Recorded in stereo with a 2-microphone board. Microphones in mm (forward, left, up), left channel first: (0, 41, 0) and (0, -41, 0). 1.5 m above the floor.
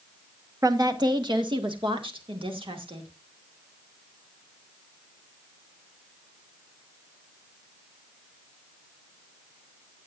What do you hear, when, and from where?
0.6 s a woman speaking: 45° right (ahead or behind), 1.4 m; by 3.1 s 90° right, 2.5 m